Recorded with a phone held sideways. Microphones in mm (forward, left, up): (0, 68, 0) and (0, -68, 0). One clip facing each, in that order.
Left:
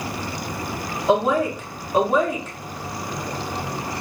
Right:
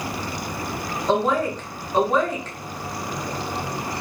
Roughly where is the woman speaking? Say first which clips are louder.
Left 2 dB; centre.